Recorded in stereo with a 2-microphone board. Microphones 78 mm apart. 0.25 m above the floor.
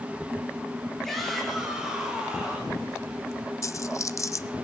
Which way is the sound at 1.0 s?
5° left (ahead or behind).